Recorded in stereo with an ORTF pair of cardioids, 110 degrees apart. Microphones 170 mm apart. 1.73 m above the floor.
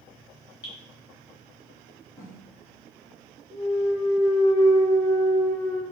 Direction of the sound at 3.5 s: 5° left.